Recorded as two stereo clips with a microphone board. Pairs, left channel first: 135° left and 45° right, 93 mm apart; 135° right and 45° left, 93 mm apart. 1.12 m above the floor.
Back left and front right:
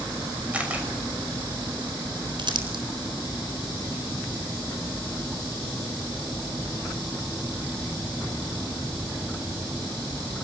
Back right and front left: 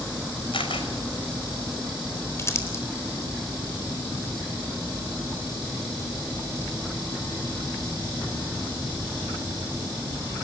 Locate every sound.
0.5 s a camera shutter: 120° right, 6 m
2.4 s crumpling: 75° right, 4 m